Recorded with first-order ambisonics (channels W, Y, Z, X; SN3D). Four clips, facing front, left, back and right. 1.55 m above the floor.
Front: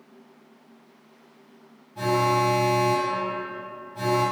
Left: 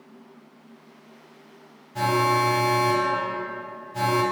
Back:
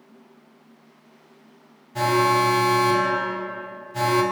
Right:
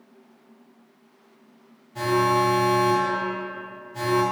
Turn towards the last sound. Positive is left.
turn(degrees=165)